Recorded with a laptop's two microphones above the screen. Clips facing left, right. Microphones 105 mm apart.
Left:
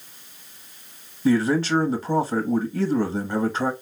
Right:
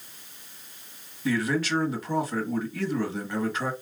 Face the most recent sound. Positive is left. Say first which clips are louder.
# left 6 dB
turn(degrees=30)  # may be behind; listen again after turning